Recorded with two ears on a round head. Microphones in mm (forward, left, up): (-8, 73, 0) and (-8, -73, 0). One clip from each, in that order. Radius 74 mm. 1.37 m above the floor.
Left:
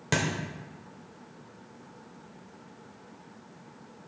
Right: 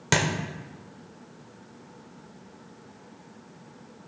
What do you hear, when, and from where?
0.1 s a thud: 25° right (ahead or behind), 1.1 m